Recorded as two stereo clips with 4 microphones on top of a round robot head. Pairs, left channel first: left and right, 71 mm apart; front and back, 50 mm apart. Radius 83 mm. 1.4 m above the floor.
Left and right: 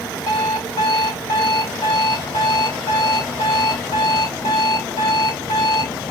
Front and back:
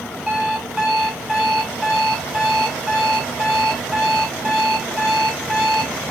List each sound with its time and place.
0.3 s an alarm clock: 95° left, 0.8 m